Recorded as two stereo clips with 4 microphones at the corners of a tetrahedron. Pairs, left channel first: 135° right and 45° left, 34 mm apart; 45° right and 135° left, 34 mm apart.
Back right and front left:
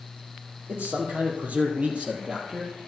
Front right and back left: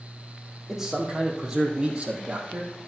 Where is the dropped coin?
I don't hear a dropped coin.